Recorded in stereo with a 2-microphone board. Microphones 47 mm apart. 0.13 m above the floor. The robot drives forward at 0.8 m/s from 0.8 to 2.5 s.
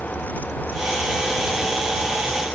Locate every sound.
Only background noise.